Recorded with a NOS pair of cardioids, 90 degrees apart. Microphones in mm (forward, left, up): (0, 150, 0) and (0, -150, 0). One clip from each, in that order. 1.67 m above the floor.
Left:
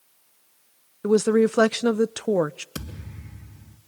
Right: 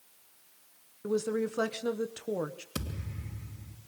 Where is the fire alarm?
No fire alarm in this recording.